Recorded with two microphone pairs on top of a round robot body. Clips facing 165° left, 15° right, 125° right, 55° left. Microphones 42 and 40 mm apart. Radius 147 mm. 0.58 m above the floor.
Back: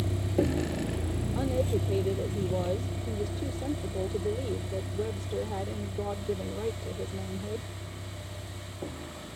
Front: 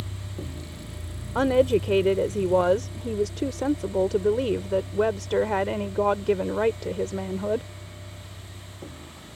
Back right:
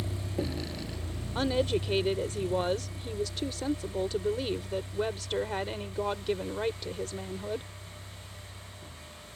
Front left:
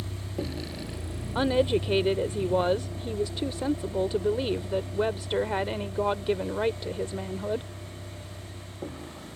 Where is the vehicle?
150° left; by 9.4 s 85° left.